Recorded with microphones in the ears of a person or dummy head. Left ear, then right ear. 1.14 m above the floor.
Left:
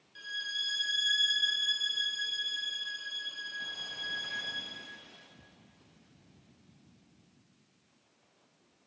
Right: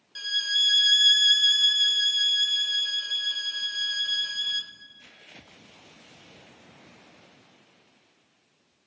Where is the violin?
45° right (ahead or behind), 0.7 m.